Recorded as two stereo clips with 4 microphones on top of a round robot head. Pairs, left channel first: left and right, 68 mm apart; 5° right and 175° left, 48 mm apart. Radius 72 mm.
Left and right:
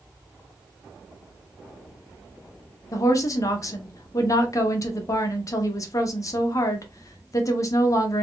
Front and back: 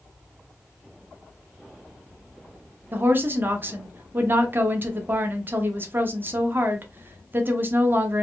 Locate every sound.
2.9 s a woman speaking: 130° left, 0.9 m